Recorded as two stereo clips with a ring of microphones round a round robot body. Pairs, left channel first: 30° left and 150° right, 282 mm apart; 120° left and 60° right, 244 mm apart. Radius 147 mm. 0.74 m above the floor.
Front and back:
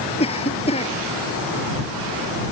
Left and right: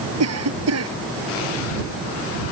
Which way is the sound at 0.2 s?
40° right.